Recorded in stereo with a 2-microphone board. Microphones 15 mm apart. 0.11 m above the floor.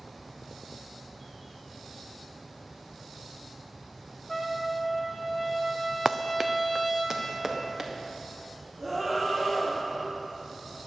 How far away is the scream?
About 3.5 m.